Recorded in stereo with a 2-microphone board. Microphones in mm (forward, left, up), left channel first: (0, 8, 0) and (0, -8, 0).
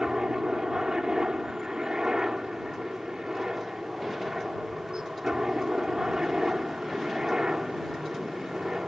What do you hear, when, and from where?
0.0 s a helicopter: 45° right (ahead or behind)